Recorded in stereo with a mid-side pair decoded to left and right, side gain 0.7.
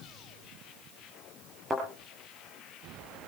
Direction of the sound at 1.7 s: 15° right.